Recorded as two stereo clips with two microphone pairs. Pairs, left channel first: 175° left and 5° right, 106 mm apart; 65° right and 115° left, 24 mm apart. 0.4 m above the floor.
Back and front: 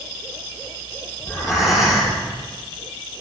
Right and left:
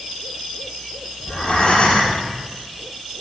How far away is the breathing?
About 6.5 m.